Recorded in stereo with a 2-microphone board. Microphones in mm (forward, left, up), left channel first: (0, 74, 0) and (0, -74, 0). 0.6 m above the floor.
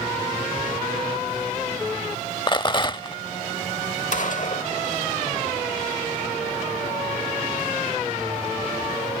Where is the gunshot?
60° left (ahead or behind).